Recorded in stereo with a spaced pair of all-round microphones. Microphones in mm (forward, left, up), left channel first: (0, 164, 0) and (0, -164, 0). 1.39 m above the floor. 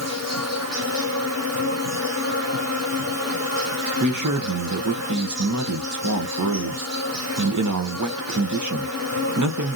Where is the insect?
50° right (ahead or behind), 1.5 m.